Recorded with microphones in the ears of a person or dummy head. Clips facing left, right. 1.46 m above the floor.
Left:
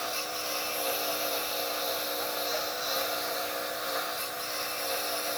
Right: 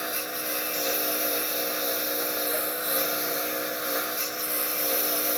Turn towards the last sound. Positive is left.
turn(degrees=-45)  # may be behind; listen again after turning